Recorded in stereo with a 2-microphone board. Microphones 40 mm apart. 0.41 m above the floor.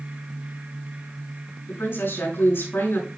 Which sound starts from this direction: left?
A woman speaking, at 1.7 s.